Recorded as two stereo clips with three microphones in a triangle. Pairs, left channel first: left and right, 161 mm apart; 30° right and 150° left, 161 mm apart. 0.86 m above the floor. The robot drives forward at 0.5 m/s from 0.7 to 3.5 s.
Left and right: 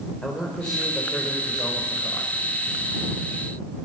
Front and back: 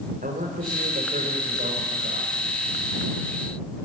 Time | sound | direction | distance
0.2 | a man speaking | 175° left | 4 m